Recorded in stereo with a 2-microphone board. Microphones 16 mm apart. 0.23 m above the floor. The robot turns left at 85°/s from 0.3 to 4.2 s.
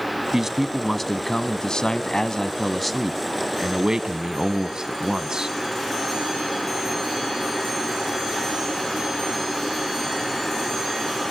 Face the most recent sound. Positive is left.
turn(degrees=-110)